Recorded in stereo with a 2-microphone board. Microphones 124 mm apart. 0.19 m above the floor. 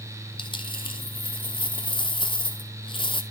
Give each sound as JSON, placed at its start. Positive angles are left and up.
{"t": 0.4, "sound": "a dropped coin", "side_deg": 45, "distance_m": 1.0}